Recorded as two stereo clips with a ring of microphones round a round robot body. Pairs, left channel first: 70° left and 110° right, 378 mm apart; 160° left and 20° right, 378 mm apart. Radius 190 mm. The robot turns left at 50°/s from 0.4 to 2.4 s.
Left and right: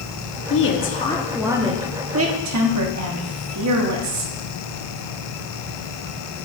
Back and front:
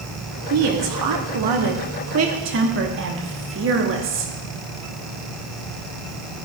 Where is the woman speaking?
20° left, 1.1 m; by 4.3 s 75° right, 1.1 m.